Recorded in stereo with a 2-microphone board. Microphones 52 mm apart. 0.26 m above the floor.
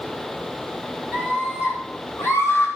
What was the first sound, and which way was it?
A scream, 55° left (ahead or behind).